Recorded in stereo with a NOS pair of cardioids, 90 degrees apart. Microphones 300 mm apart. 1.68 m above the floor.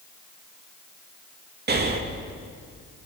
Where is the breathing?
35° right, 2.5 m.